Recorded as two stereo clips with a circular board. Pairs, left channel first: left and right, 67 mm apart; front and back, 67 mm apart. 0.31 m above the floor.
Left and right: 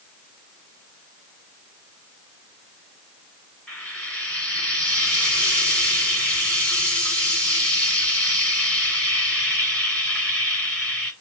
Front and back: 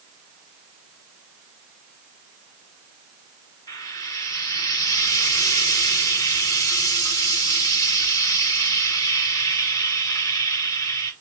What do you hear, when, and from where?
3.7 s frying: 15° left, 1.8 m